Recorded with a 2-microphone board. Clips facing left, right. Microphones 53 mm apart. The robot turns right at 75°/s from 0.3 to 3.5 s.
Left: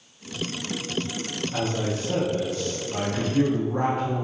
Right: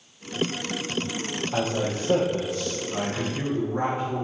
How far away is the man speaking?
About 3 m.